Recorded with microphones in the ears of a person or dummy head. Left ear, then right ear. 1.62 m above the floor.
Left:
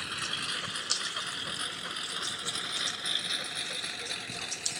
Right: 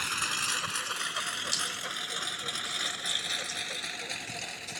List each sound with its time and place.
0.0 s a lawn mower: 35° right (ahead or behind); by 4.8 s 15° right (ahead or behind)